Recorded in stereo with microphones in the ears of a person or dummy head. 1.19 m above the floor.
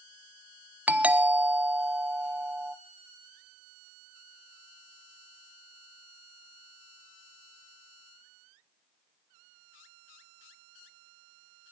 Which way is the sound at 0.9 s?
10° right (ahead or behind).